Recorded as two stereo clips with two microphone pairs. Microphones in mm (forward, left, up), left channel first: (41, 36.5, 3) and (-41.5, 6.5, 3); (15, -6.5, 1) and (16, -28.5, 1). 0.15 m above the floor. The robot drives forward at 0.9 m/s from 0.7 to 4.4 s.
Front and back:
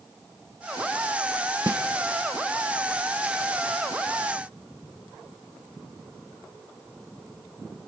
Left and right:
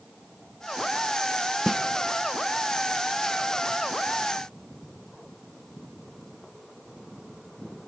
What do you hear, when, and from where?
1.7 s a snare drum: 140° right, 0.6 m; by 1.8 s 150° right, 0.7 m